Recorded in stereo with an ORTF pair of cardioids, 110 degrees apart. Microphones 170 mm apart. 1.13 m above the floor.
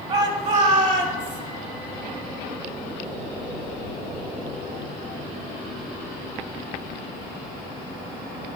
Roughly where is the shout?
Ahead right.